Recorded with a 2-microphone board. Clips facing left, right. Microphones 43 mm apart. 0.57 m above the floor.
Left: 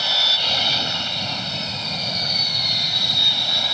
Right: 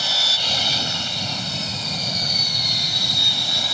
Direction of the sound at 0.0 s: 10° left (ahead or behind).